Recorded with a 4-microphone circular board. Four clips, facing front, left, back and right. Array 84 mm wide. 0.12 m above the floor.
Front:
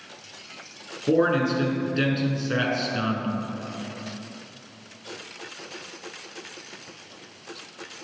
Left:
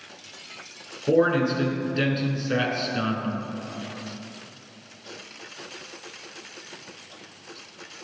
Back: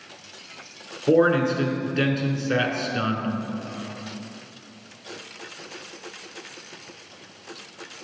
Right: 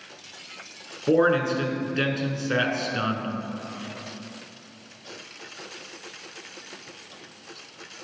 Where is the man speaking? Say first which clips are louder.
Even, back 3 dB; 115° right, 1.1 m.